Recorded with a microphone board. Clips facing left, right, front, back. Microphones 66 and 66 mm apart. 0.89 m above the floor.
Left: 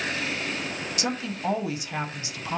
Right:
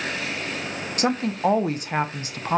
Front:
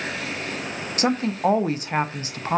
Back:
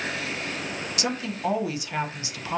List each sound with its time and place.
1.0 s a woman speaking: 50° right, 0.5 m